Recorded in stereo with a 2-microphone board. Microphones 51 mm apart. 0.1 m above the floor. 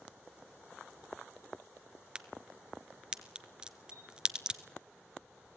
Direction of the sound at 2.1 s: 20° right (ahead or behind).